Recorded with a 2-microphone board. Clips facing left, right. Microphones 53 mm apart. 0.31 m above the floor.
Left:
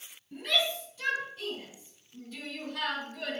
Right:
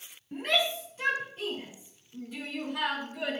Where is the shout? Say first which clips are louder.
Right 2 dB; 45° right (ahead or behind), 2 m; by 3.4 s 15° right (ahead or behind), 3 m.